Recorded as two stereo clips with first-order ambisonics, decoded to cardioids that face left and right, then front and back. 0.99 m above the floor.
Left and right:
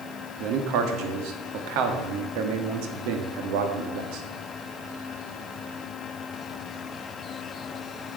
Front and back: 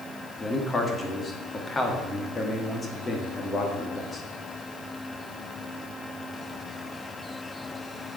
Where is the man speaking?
75° right, 1.3 m.